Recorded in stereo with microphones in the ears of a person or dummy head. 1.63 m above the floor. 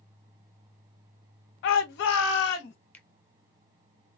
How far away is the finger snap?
About 0.7 m.